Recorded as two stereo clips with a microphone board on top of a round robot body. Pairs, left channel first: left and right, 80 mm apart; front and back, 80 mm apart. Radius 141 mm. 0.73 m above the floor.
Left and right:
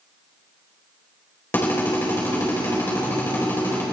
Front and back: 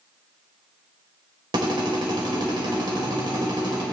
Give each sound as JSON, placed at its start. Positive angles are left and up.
{"t": 1.5, "sound": "a drill", "azimuth_deg": 155, "distance_m": 4.0}